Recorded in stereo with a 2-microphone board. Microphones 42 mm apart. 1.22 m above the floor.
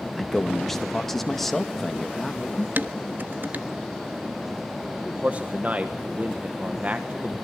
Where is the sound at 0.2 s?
5° left (ahead or behind), 2.0 m.